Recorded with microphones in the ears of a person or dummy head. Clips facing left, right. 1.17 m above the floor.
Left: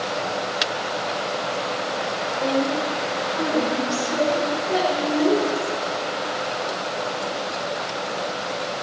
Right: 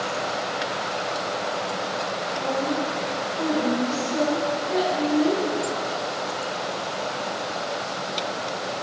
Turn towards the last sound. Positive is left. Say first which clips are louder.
# left 4 dB
turn(degrees=75)  # may be behind; listen again after turning